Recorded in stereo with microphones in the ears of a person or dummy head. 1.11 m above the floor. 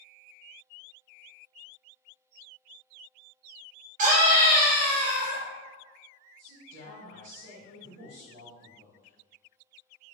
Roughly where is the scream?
Right.